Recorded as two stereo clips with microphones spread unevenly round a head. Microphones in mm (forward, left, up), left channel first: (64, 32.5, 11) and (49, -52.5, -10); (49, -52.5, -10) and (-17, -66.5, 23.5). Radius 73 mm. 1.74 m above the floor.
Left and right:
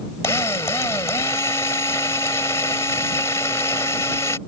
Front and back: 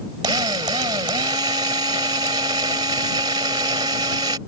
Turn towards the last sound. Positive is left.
turn(degrees=150)